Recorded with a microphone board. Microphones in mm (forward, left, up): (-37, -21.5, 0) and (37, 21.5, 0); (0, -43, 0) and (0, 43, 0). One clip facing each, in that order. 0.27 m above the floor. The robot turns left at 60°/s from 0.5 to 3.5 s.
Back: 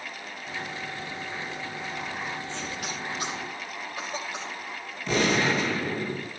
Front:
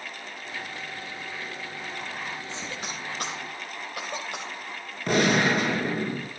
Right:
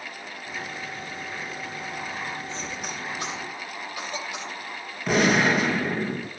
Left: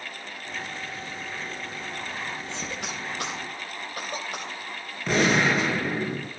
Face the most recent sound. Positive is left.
turn(degrees=-5)